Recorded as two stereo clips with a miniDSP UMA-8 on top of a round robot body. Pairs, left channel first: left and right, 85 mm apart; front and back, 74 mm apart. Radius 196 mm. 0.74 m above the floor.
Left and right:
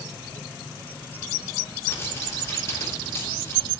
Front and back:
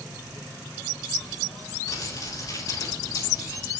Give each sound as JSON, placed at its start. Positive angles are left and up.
{"t": 1.9, "sound": "crumpling", "azimuth_deg": 35, "distance_m": 4.0}